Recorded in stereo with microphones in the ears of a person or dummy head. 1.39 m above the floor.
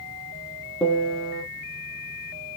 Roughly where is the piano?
Centre.